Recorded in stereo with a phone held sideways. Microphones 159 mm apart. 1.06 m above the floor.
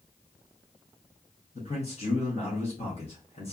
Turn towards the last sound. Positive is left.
turn(degrees=45)  # may be behind; listen again after turning